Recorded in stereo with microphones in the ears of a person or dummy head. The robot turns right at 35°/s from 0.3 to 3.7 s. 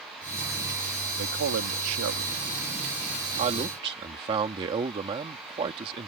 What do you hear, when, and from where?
1.2 s a man speaking: 65° right (ahead or behind); by 6.1 s 25° right (ahead or behind)